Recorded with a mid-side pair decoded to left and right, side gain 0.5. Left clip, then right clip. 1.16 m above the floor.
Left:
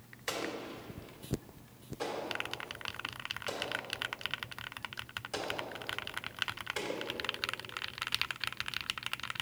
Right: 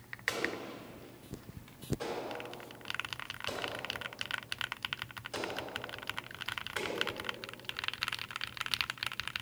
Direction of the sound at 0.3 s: 30° left.